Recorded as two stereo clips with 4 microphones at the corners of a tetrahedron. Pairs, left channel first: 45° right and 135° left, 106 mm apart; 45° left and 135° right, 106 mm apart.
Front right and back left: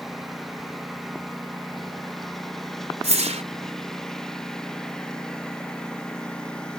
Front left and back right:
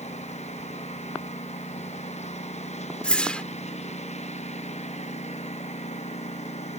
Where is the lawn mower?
45° left; by 6.8 s 40° left.